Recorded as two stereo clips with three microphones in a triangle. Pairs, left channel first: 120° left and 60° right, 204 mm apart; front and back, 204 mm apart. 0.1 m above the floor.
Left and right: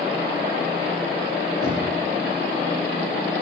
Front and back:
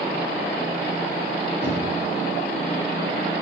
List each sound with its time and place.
1.6 s knocking: 125° left, 7 m